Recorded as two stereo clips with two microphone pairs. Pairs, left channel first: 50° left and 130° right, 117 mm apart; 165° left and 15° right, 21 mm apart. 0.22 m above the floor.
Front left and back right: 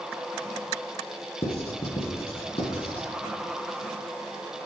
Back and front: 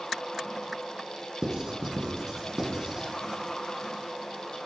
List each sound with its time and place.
1.4 s writing: 40° left, 1.5 m